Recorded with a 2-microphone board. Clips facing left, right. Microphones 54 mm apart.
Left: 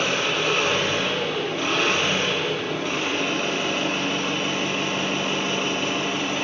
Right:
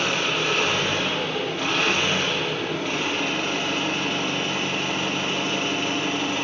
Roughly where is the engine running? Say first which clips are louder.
Left 1 dB; centre.